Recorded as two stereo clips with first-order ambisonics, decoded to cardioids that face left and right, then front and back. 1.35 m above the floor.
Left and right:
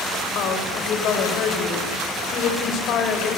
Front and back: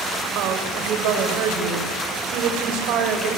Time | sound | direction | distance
0.3 | a woman speaking | 140° left | 7.5 m